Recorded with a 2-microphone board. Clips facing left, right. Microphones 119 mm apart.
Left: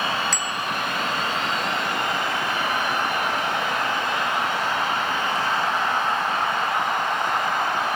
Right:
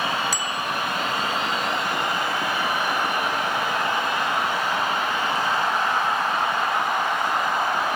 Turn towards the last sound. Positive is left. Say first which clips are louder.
# even
turn(degrees=-10)  # may be behind; listen again after turning